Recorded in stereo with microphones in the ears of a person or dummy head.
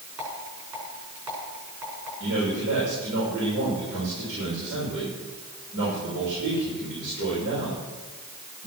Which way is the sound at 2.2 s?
65° right (ahead or behind).